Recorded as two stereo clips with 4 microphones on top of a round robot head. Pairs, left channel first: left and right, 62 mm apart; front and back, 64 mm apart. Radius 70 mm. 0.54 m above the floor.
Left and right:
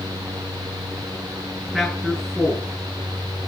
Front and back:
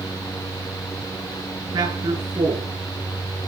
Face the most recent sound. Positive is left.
turn(degrees=180)